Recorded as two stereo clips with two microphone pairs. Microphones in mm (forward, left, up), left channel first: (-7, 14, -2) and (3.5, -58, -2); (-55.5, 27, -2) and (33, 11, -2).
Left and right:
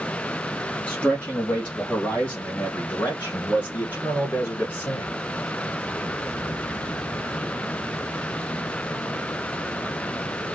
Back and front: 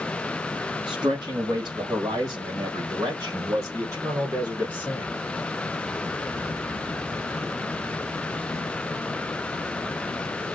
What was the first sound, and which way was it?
A man speaking, 30° left.